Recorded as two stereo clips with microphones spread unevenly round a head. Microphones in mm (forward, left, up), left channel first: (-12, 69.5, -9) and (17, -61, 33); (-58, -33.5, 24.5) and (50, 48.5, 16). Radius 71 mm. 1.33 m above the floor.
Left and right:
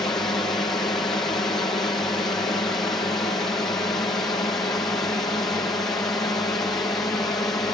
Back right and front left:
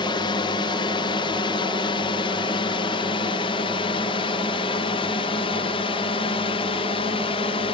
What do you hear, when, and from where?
0.0 s a drone: 170° left; by 7.8 s 175° left